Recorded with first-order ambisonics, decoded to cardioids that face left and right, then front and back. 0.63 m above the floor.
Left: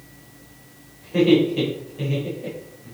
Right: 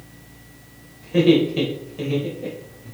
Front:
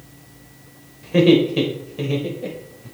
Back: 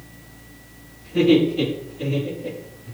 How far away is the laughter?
About 3.5 m.